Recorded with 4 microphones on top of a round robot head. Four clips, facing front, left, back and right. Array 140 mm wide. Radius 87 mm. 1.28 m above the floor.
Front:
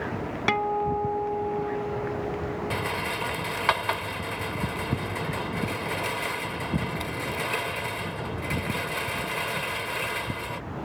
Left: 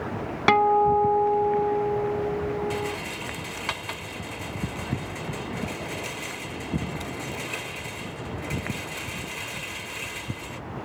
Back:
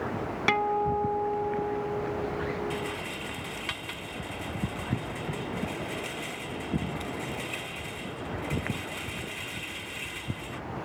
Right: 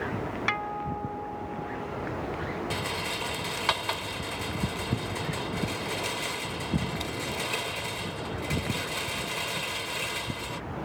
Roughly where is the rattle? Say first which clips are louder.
Left 3 dB, front 4 dB; ahead.